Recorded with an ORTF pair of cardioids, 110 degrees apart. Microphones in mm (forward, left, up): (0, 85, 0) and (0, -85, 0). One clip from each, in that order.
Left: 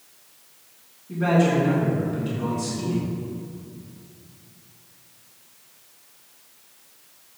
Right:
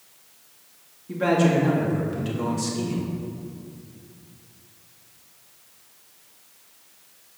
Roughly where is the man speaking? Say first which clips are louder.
Even; ahead right.